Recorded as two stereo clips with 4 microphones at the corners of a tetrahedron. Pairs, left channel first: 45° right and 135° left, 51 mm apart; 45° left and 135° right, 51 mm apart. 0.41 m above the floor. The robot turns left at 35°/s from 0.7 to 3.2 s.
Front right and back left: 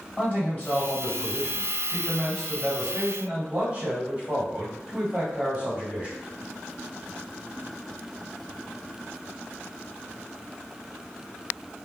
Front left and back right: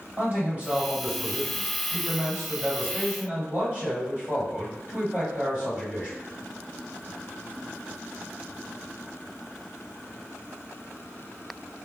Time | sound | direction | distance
0.2 | a man speaking | 95° right | 1.8 m